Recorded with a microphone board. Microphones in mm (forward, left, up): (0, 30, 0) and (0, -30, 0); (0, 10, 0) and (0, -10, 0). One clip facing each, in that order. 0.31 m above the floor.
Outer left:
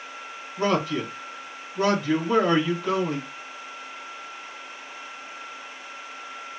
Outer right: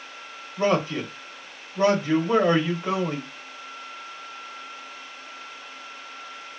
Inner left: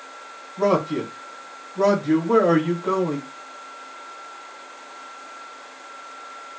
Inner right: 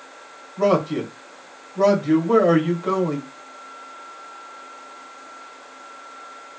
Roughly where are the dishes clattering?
I don't hear dishes clattering.